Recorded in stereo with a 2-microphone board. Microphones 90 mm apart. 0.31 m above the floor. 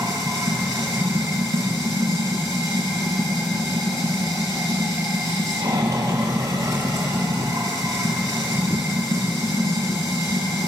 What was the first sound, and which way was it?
Running water, 40° right (ahead or behind).